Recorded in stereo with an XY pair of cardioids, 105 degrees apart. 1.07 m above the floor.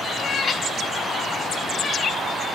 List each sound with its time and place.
0.2 s a cat meowing: 50° left, 1.0 m; by 2.2 s 40° left, 3 m